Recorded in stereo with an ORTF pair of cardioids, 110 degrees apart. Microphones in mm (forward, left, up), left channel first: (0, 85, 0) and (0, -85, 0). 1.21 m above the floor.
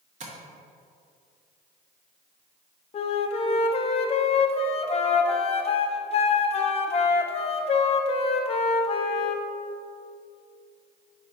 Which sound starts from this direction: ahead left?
A flute, at 2.9 s.